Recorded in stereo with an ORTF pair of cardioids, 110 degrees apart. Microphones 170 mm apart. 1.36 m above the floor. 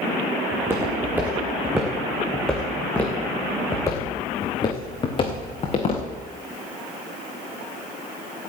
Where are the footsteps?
15° right, 5 m; by 6.0 s 40° left, 5 m.